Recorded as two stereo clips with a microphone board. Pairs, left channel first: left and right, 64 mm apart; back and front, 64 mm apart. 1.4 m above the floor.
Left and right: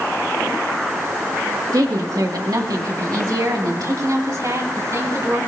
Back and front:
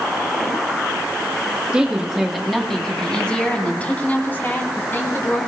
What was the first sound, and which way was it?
A woman speaking, 80° right.